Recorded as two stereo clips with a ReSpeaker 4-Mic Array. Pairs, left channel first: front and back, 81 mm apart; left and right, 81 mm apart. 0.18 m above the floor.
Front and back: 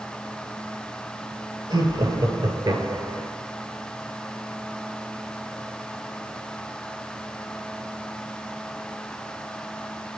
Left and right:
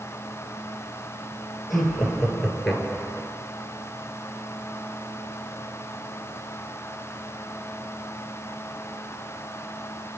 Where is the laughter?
175° left, 3 m; by 3.3 s 175° right, 1.9 m.